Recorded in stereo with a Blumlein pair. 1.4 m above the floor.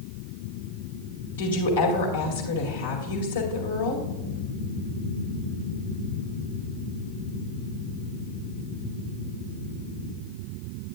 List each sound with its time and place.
1.4 s a woman speaking: 65° left, 2 m